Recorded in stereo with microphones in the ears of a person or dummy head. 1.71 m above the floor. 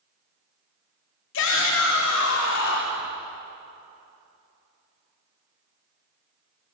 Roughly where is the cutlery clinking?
No cutlery clinking in this recording.